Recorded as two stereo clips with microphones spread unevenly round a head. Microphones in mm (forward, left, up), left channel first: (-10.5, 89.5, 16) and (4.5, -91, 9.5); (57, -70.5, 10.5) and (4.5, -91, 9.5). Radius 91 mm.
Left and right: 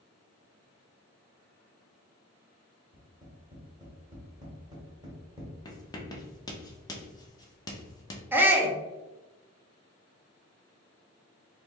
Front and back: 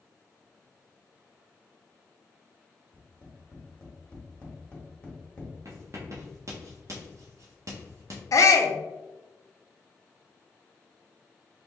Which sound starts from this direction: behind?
Writing, at 5.7 s.